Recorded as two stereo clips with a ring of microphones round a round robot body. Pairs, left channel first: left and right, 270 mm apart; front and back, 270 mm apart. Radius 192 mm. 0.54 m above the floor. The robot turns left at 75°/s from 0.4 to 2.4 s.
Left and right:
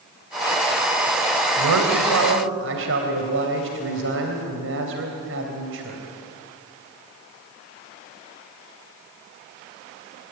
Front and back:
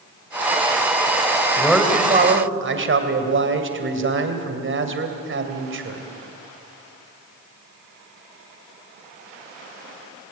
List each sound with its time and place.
1.6 s a man speaking: 80° right, 3 m; by 6.0 s 140° right, 3 m